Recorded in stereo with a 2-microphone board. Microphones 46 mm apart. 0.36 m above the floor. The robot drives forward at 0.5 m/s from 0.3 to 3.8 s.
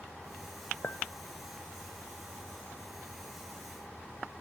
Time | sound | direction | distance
0.8 | a clink | 45° left (ahead or behind) | 0.6 m